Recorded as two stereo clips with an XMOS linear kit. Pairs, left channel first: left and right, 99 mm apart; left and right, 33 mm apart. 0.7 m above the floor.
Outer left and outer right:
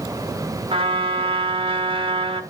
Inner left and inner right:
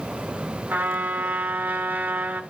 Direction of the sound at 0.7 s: 65° right (ahead or behind).